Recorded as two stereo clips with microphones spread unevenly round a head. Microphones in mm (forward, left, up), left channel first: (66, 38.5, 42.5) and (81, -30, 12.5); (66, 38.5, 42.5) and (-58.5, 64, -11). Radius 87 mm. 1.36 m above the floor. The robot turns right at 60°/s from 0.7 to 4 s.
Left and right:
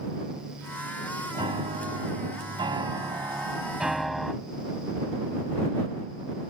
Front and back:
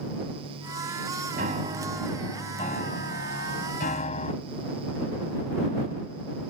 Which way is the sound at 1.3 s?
145° right.